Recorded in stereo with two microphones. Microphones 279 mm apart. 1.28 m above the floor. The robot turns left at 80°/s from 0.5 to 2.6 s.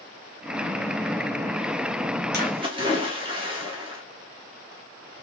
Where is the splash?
40° right (ahead or behind), 1.4 m; by 4.0 s 20° right (ahead or behind), 1.4 m.